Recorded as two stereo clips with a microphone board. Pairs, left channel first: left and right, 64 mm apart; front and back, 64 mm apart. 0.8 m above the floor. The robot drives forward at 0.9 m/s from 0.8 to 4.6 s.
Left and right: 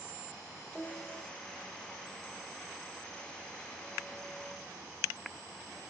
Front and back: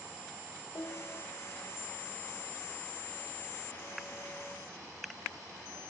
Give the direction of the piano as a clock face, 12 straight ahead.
11 o'clock.